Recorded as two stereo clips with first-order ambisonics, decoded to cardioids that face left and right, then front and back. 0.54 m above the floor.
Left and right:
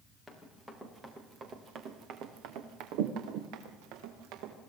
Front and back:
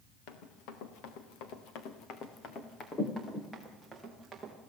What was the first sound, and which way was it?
Running footsteps, 5° left.